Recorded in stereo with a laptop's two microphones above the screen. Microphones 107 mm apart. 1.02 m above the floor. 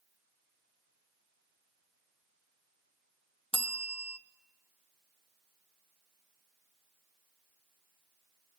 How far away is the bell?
About 1.2 m.